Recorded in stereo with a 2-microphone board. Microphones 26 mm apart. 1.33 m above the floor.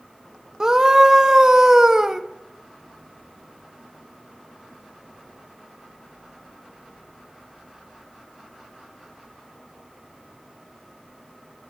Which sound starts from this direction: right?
A scream, at 0.6 s.